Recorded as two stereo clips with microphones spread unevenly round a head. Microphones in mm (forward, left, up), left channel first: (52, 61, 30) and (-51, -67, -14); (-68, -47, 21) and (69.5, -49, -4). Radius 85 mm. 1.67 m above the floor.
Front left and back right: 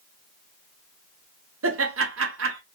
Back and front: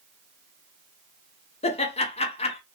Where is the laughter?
140° right, 1.0 m.